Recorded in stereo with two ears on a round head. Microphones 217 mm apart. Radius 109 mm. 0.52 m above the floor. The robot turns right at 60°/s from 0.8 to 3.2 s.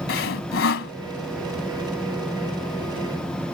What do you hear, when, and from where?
0.1 s sawing: 55° left (ahead or behind); by 0.9 s 50° left (ahead or behind)